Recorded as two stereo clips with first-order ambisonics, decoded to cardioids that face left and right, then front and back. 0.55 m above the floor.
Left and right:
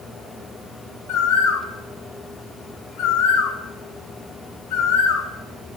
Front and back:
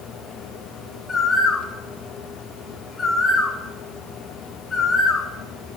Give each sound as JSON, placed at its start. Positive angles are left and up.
{"t": 1.1, "sound": "a bird", "azimuth_deg": 70, "distance_m": 1.1}